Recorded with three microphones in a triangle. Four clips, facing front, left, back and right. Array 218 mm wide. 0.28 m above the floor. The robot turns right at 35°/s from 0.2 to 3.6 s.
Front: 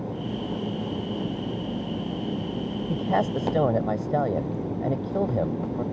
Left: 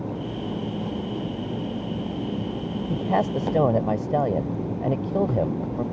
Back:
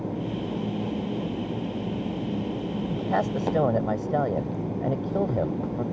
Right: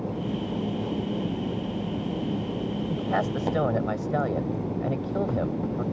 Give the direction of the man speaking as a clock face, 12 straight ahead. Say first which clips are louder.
Left 5 dB, front 2 dB; 10 o'clock.